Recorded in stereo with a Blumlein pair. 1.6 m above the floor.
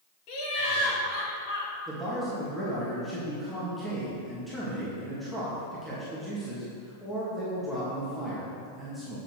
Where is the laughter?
45° left, 3 m; by 1.7 s 60° left, 4 m.